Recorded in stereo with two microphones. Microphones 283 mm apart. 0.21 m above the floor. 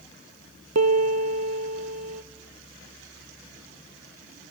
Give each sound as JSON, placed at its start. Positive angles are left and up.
{"t": 0.8, "sound": "a piano", "side_deg": -65, "distance_m": 0.8}